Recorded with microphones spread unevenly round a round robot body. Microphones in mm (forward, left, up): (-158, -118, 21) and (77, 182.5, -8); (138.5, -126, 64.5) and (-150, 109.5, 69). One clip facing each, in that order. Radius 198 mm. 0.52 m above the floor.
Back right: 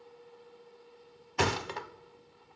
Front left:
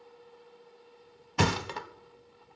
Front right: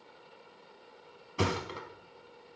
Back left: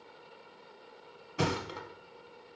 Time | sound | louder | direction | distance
1.4 | a thud | front left 2 dB, even | 50° left | 0.7 m